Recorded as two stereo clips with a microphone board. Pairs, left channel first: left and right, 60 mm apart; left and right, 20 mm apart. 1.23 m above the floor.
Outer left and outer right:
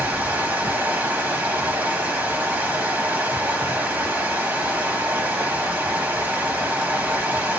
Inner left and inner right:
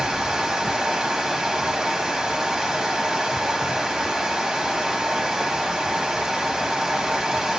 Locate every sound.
0.0 s running water: 30° right (ahead or behind), 0.9 m